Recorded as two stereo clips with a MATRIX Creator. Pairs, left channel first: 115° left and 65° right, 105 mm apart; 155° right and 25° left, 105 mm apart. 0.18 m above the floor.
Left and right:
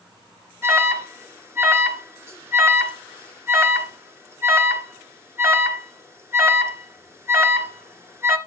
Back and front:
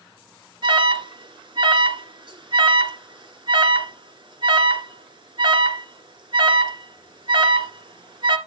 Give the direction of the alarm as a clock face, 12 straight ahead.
12 o'clock.